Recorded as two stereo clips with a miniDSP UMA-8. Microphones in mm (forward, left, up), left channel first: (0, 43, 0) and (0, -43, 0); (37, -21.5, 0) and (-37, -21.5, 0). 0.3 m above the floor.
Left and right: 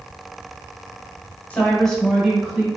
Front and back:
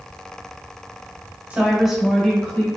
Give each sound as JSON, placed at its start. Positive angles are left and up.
{"t": 1.5, "sound": "a woman speaking", "azimuth_deg": 135, "distance_m": 1.2}